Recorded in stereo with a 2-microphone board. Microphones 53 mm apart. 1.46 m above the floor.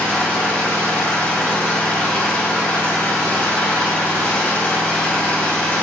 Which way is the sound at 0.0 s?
35° left (ahead or behind).